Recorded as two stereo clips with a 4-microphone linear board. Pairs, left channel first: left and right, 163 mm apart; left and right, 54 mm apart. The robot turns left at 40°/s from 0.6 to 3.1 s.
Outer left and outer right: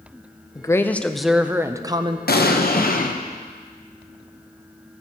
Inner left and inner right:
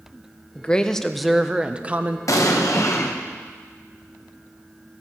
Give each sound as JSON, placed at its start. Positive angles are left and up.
{"t": 0.6, "sound": "a woman speaking", "azimuth_deg": 25, "distance_m": 0.6}
{"t": 2.3, "sound": "an explosion", "azimuth_deg": 95, "distance_m": 0.9}